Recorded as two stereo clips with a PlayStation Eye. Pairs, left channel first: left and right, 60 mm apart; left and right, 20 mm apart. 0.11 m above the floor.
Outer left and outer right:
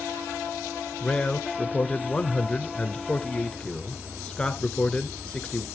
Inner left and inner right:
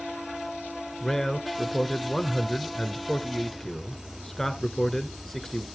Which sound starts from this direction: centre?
A man speaking, at 1.0 s.